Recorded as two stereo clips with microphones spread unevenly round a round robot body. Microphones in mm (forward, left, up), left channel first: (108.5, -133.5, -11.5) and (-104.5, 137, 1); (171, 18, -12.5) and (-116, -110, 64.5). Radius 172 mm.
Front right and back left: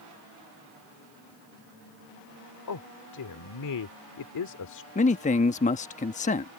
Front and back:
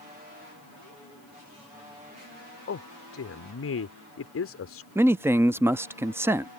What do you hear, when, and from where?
2.7 s a man speaking: 15° right
5.0 s a man speaking: 50° right